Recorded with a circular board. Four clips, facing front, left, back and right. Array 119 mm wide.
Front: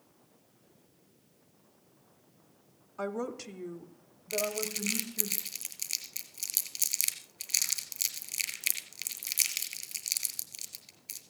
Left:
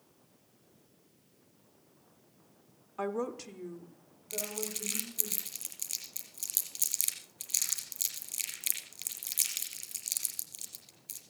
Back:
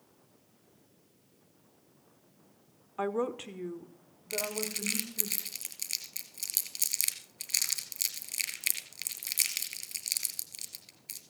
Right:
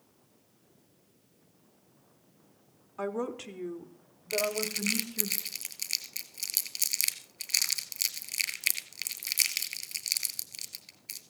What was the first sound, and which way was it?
A woman speaking, 170° left.